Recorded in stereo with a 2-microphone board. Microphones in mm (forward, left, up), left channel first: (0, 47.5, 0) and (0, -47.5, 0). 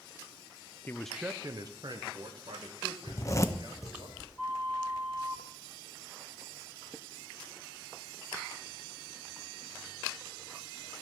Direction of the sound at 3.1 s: 35° left (ahead or behind).